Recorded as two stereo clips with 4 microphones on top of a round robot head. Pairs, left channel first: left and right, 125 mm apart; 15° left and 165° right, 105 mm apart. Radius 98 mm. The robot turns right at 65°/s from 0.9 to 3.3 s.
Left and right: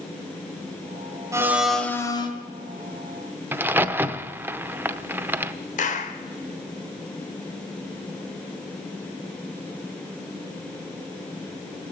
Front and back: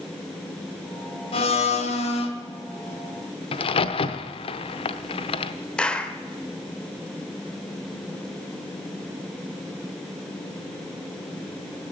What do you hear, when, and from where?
1.3 s a blender: 25° right, 1.8 m; by 2.3 s 40° left, 1.8 m
3.5 s a crack: 15° right, 0.8 m
5.8 s a clap: 95° left, 1.5 m